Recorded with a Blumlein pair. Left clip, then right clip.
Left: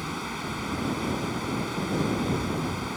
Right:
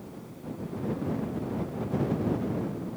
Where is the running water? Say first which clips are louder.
Left 12 dB; 50° left.